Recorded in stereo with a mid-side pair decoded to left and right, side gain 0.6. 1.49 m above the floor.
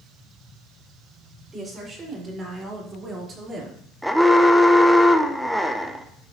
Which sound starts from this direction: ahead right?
A woman speaking, at 1.5 s.